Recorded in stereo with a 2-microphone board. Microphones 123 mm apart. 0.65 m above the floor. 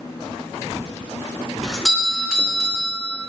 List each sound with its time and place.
1.6 s a doorbell: centre (ahead or behind), 2.5 m